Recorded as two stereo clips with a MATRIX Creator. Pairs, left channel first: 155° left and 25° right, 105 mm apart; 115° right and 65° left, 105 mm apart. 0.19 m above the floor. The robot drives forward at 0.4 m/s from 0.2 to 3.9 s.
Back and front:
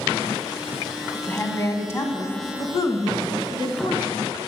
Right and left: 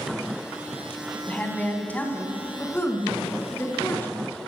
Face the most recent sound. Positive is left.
turn(degrees=-175)